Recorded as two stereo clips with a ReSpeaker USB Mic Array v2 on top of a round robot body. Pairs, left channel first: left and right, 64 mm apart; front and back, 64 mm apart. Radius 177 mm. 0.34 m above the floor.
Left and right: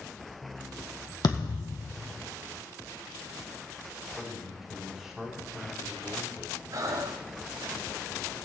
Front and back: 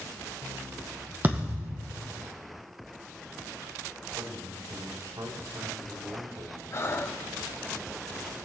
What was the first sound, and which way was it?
A thud, 115° left.